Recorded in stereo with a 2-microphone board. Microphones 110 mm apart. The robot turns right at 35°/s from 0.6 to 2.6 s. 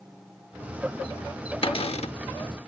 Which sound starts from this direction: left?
A cupboard door, at 1.6 s.